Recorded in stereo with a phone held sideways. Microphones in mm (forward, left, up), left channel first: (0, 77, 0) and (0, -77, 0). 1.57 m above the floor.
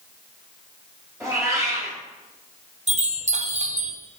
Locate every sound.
1.2 s a cat meowing: 20° right (ahead or behind), 3 m
2.9 s a chime: 50° right (ahead or behind), 0.8 m